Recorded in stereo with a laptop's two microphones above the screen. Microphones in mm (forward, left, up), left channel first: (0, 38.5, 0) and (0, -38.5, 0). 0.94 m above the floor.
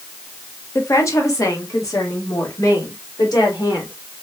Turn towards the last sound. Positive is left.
turn(degrees=55)  # may be behind; listen again after turning